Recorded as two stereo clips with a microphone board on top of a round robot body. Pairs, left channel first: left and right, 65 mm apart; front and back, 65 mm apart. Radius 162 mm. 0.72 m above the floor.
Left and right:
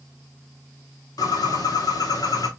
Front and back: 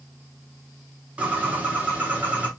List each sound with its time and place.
1.2 s a bird: 110° left, 1.6 m